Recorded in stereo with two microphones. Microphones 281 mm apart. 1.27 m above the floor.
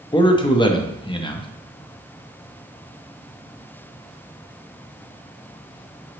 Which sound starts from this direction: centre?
A man speaking, at 0.1 s.